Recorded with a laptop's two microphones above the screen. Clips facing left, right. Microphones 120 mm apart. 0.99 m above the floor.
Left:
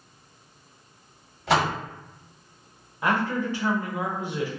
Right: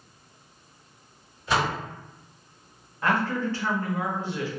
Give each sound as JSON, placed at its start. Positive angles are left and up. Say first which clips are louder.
{"t": 1.5, "sound": "a door slam", "louder": "left 3 dB", "side_deg": 80, "distance_m": 1.1}
{"t": 3.0, "sound": "a man speaking", "louder": "even", "side_deg": 15, "distance_m": 0.7}